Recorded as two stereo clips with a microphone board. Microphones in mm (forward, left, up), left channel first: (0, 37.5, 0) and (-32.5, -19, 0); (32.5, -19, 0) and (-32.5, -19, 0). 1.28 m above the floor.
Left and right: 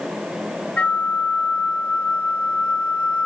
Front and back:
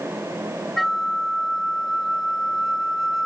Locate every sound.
0.8 s a flute: 80° left, 0.8 m